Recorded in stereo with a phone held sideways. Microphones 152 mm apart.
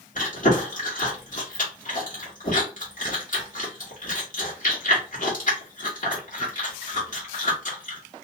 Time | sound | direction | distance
0.1 | chewing | 60° left (ahead or behind) | 1.3 m